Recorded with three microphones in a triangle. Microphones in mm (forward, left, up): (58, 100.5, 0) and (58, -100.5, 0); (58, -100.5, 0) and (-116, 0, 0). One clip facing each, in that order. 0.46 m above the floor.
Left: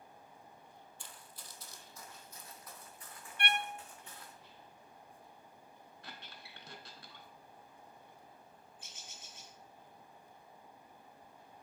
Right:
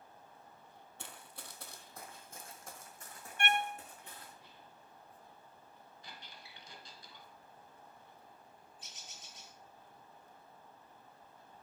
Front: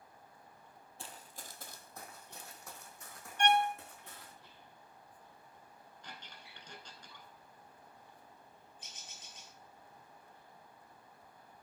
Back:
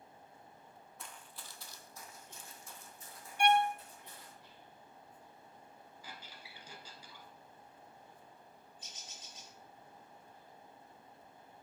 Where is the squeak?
70° left, 1.2 m.